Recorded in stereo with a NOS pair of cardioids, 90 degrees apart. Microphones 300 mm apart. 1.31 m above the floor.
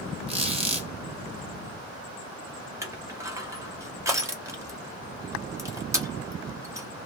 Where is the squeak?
20° right, 1.1 m.